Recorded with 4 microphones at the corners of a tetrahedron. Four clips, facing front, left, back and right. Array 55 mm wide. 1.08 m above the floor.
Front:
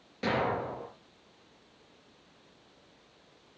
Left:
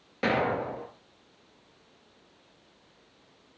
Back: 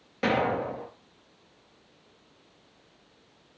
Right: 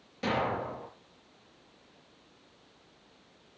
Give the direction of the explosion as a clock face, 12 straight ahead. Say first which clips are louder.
Left 4 dB, back 4 dB; 8 o'clock.